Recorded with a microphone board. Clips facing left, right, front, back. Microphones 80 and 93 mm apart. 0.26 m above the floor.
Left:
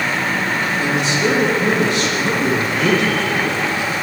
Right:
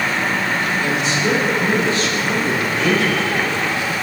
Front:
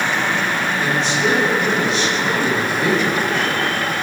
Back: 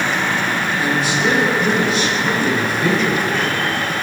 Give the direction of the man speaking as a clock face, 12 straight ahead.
9 o'clock.